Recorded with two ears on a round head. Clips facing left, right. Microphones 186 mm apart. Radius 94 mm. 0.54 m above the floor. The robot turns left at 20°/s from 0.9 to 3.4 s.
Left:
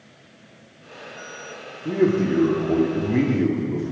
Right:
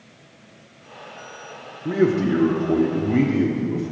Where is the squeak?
I don't hear a squeak.